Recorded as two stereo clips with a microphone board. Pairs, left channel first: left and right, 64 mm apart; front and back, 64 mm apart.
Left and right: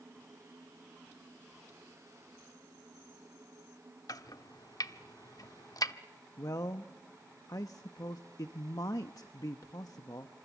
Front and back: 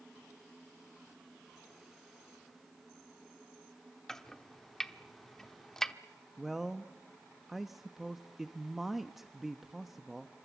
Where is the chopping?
85° left, 0.8 m.